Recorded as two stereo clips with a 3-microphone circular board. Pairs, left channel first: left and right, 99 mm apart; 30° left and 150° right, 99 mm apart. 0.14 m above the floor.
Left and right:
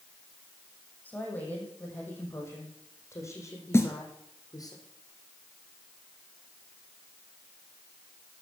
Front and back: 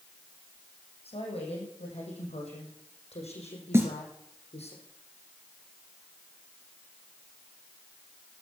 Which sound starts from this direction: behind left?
A snare drum, at 3.7 s.